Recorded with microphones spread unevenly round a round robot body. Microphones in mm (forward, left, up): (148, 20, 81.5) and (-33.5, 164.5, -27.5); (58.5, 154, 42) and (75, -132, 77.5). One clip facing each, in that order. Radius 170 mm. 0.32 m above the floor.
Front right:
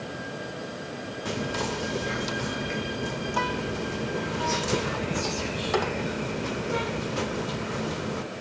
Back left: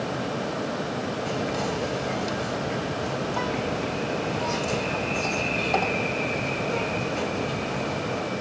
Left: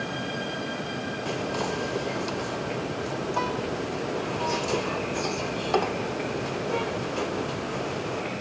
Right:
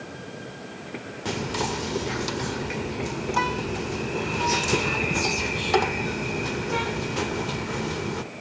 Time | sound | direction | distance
1.2 | whispering | 130° right | ?